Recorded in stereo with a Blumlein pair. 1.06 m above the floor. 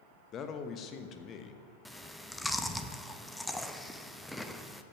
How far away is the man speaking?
About 1.1 m.